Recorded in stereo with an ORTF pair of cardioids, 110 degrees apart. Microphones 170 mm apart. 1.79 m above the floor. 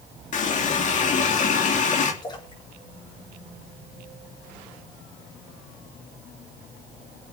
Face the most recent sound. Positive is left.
turn(degrees=25)